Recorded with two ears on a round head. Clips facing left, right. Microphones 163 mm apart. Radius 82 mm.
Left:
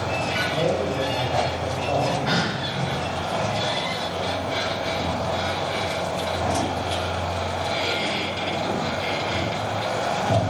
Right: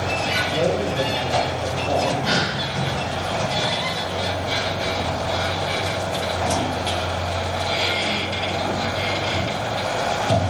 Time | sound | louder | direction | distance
0.5 | a man speaking | right 2 dB | 50° right (ahead or behind) | 2.5 m
2.2 | a gasp | right 1 dB | 45° right (ahead or behind) | 3.5 m